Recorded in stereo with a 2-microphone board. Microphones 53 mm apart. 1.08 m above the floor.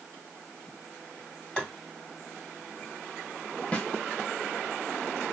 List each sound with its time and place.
1.6 s tapping: 20° left (ahead or behind), 1.8 m
3.7 s a snare drum: 25° left (ahead or behind), 1.1 m